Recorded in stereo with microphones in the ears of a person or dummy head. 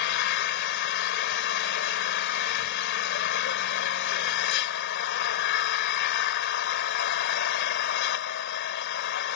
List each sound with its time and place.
0.0 s an engine running: 60° left (ahead or behind)